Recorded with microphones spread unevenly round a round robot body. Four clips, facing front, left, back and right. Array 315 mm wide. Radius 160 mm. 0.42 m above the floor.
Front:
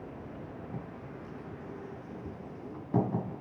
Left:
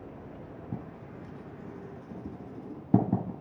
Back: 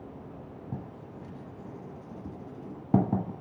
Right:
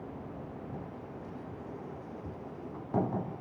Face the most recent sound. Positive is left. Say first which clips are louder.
# left 1 dB, back 1 dB
turn(degrees=130)